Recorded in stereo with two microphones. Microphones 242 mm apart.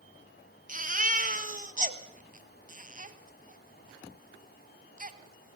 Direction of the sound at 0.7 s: 30° right (ahead or behind).